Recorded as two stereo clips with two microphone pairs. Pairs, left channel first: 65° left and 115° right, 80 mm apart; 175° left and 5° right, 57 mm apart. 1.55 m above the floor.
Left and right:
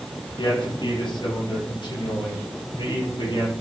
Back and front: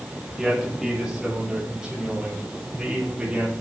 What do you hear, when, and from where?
0.4 s a man speaking: 80° left, 8.5 m; by 3.5 s 70° left, 11 m